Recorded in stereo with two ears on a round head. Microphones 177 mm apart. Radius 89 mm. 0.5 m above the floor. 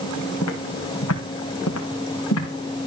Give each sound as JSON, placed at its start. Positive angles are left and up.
{"t": 0.4, "sound": "footsteps", "side_deg": 80, "distance_m": 3.5}